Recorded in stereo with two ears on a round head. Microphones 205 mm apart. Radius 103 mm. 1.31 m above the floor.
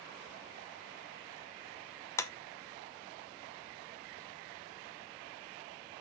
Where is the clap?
15° left (ahead or behind), 1.0 m.